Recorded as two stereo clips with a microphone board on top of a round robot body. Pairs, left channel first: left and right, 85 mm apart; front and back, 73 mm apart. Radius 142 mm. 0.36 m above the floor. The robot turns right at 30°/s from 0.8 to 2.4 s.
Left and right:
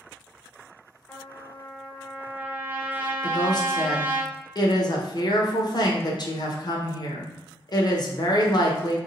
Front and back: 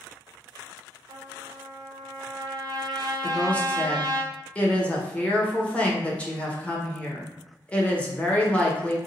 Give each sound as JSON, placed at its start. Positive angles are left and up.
{"t": 1.1, "sound": "a trumpet", "azimuth_deg": 160, "distance_m": 0.8}
{"t": 3.2, "sound": "a woman speaking", "azimuth_deg": 70, "distance_m": 1.5}